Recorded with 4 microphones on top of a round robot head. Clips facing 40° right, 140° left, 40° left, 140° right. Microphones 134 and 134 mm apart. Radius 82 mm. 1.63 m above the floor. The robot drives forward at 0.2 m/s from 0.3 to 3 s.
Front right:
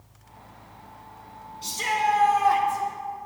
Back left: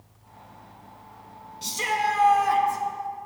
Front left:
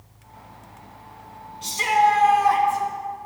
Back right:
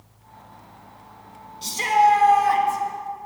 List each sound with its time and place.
1.6 s a shout: 165° left, 2.5 m